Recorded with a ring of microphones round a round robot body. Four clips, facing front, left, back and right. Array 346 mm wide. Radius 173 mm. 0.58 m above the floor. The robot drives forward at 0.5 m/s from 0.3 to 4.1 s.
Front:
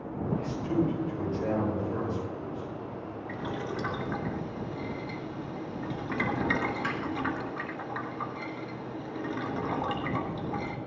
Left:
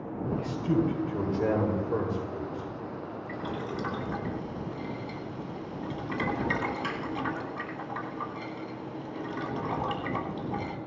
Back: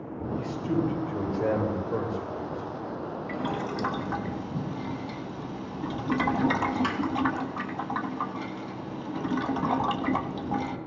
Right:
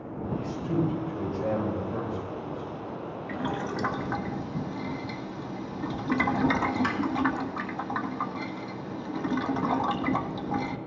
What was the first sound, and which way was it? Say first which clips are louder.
A man speaking: left 1 dB, back 2 dB; 110° left.